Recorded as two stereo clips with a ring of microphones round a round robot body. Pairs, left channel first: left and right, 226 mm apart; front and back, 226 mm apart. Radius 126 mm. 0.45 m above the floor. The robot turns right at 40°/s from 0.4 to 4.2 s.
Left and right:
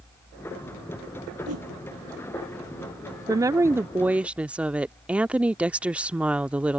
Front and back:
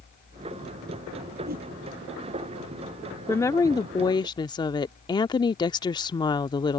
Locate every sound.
1.5 s a whoosh: 125° right; by 1.7 s 115° right
3.3 s a woman speaking: 55° right; by 6.8 s 20° right